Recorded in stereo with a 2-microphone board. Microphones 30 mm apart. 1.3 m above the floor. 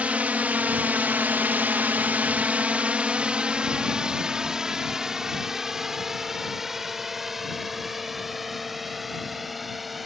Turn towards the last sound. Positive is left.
turn(degrees=0)  # may be behind; listen again after turning